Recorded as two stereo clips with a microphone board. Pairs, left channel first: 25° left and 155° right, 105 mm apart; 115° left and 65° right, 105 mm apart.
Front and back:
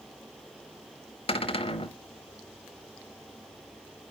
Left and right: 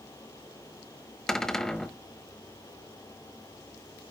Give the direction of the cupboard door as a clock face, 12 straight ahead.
11 o'clock.